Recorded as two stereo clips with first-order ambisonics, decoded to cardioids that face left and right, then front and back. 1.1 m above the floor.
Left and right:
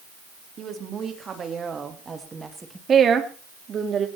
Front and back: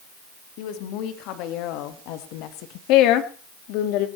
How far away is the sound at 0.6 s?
About 2.5 m.